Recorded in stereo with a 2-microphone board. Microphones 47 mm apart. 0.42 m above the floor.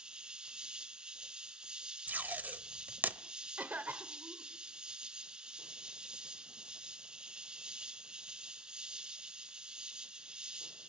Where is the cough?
40° right (ahead or behind), 1.3 m.